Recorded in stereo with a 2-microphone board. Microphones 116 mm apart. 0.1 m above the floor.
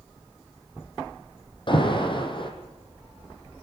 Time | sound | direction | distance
1.7 | an alarm | 45° left (ahead or behind) | 4 m